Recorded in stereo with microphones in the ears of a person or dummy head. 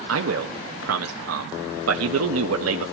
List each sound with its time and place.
0.1 s a man speaking: 75° right (ahead or behind), 1.5 m